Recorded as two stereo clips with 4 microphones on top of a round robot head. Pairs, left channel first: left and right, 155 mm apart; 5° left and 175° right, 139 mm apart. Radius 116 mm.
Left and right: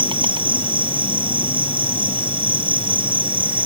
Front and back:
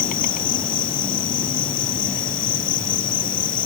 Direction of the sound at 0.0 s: 30° right.